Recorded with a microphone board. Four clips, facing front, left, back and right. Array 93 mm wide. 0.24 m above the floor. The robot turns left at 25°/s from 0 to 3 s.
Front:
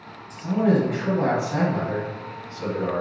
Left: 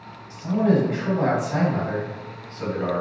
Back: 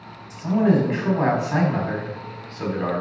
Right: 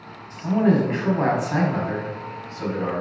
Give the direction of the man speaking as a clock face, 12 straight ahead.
4 o'clock.